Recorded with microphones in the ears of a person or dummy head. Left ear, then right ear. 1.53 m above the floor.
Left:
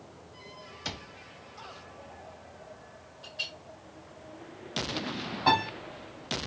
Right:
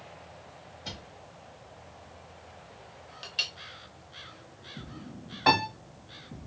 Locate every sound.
0.8 s a cupboard door: 55° left (ahead or behind), 0.7 m
3.2 s a clink: 50° right (ahead or behind), 0.7 m
5.5 s a piano: 25° right (ahead or behind), 1.9 m